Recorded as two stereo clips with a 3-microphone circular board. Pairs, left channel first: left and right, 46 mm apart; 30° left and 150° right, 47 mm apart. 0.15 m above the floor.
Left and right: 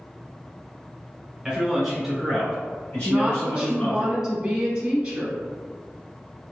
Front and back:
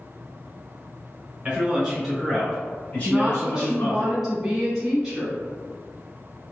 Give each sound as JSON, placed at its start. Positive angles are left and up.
{"t": 1.4, "sound": "a man speaking", "azimuth_deg": -145, "distance_m": 1.1}
{"t": 3.0, "sound": "a woman speaking", "azimuth_deg": -75, "distance_m": 1.0}